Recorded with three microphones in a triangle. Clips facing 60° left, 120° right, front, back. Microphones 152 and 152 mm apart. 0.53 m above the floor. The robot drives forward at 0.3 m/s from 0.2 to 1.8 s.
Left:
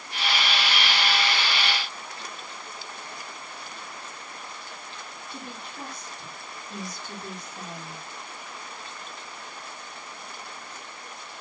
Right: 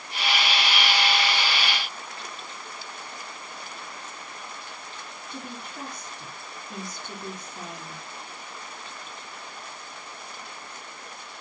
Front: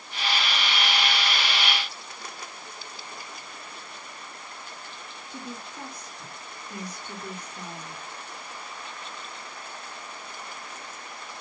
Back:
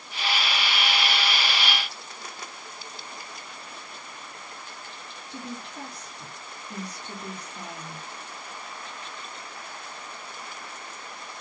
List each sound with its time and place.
5.3 s a woman speaking: 160° right, 8.5 m